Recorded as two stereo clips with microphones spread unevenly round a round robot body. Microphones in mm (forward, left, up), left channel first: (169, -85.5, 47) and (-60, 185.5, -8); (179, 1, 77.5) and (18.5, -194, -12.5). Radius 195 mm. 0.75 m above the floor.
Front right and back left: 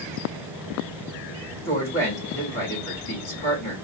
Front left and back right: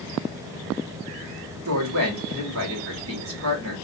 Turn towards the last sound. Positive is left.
turn(degrees=-135)